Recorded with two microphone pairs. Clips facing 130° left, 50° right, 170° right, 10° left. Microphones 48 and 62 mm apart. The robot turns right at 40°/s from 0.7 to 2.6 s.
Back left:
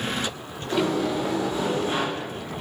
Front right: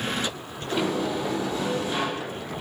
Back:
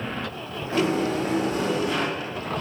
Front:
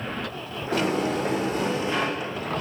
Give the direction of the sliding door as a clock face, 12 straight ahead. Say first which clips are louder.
Back left 2 dB, back 1 dB; 11 o'clock.